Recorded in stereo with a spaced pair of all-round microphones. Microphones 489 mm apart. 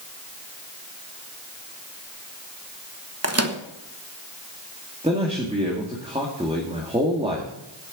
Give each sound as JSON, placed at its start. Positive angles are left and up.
{"t": 3.2, "sound": "a microwave", "side_deg": -30, "distance_m": 1.1}
{"t": 5.0, "sound": "a man speaking", "side_deg": -10, "distance_m": 2.5}